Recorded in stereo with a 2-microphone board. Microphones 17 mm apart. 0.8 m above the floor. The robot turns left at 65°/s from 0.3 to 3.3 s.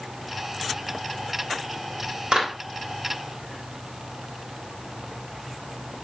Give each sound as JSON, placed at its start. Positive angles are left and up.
{"t": 2.3, "sound": "a clap", "side_deg": -80, "distance_m": 4.0}